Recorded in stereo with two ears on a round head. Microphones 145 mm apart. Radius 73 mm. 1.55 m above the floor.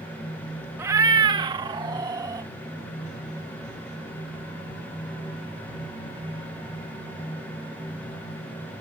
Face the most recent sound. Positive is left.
turn(degrees=-25)  # may be behind; listen again after turning